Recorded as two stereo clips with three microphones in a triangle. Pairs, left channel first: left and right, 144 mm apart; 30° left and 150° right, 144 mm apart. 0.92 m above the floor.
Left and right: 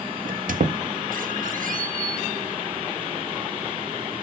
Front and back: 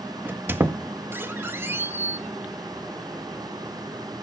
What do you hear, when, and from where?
0.2 s a squeak: 75° right, 0.5 m